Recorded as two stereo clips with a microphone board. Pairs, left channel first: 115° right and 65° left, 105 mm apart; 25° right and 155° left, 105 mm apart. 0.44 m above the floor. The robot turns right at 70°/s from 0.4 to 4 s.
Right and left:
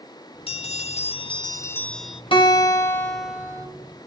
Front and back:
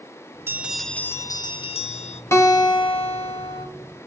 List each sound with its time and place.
0.5 s a bell: 135° right, 0.8 m; by 2.2 s 15° right, 0.8 m
2.3 s a guitar: 85° right, 2 m; by 3.7 s 10° left, 2 m